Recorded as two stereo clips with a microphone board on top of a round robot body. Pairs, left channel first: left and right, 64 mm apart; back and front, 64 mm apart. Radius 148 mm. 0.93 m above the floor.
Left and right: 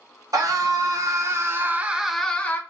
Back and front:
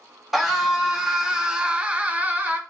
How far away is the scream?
About 1.1 m.